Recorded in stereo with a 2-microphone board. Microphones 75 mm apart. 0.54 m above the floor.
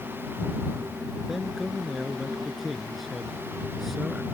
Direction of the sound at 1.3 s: Centre (ahead or behind).